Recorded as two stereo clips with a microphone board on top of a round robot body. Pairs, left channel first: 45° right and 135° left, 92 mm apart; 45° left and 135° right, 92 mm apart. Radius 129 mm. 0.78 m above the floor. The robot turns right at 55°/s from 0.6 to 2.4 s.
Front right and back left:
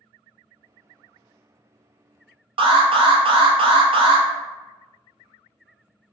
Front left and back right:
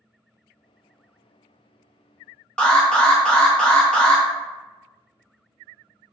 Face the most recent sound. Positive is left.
turn(degrees=125)